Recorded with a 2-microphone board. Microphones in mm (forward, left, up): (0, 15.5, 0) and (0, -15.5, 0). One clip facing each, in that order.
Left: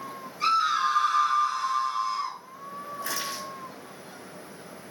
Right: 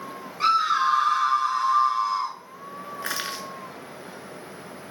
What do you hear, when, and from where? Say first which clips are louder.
0.4 s a scream: right 3 dB; 45° right (ahead or behind), 1.9 m
3.0 s crushing: right 3 dB; 65° right (ahead or behind), 0.7 m